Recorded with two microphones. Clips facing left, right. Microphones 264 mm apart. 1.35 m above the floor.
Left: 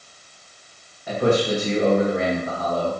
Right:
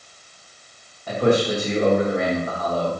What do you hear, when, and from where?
1.1 s a man speaking: 10° left (ahead or behind), 1.4 m